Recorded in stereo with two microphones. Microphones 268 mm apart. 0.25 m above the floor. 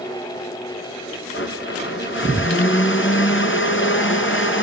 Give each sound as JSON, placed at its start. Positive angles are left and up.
{"t": 1.3, "sound": "a blender", "side_deg": 45, "distance_m": 4.0}